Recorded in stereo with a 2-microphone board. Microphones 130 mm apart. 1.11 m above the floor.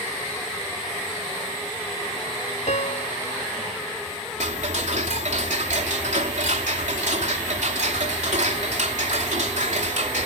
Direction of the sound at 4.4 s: 65° right (ahead or behind).